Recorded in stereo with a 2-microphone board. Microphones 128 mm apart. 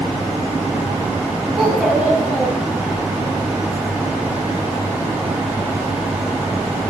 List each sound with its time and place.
1.6 s a child speaking: centre (ahead or behind), 8 m